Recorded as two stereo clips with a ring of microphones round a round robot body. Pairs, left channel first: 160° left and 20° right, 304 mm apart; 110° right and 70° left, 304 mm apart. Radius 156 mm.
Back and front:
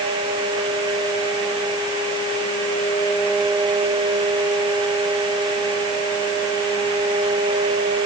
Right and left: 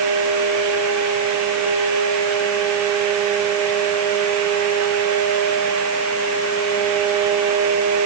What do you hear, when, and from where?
Only background noise.